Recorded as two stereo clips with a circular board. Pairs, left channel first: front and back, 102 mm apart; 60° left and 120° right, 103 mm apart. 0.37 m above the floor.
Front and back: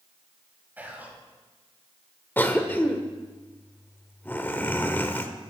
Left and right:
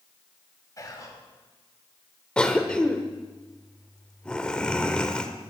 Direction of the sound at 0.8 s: 110° left.